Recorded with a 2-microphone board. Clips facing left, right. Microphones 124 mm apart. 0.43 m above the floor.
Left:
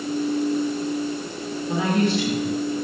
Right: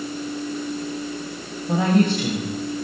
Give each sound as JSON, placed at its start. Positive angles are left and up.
{"t": 1.7, "sound": "a woman speaking", "side_deg": -50, "distance_m": 2.5}